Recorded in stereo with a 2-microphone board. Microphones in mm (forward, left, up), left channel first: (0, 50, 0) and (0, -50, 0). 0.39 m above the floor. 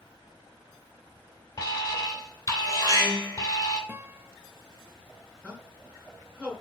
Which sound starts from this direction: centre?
A man speaking, at 5.4 s.